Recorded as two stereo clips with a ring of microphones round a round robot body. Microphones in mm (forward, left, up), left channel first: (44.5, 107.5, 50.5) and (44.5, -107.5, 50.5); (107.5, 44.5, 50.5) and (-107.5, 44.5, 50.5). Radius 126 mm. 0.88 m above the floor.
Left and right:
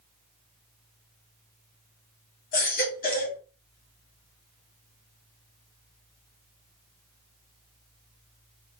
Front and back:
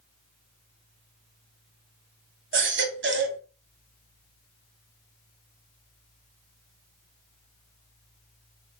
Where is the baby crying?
145° left, 2.0 m.